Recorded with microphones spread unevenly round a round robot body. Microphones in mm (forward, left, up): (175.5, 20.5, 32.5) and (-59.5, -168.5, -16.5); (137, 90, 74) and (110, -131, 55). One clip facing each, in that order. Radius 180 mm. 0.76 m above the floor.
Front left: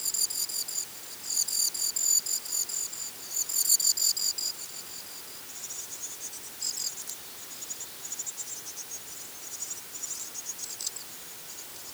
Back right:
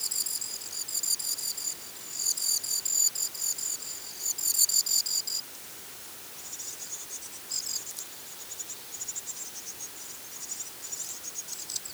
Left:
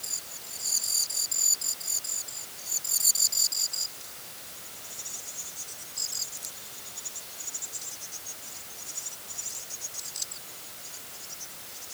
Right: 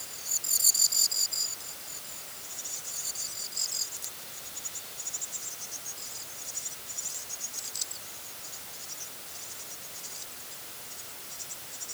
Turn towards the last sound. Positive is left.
No sound to turn to.